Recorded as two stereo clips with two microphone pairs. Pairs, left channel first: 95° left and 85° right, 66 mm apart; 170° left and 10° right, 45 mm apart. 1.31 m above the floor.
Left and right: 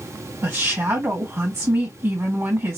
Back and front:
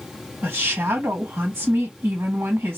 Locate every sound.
0.4 s a woman speaking: 35° right, 1.7 m